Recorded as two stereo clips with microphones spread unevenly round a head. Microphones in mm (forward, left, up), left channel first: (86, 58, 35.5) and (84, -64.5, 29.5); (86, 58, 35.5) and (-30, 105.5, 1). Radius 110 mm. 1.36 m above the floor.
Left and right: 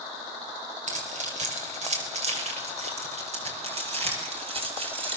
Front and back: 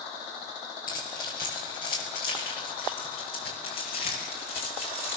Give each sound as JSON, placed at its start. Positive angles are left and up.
{"t": 0.9, "sound": "keys jangling", "azimuth_deg": -70, "distance_m": 4.5}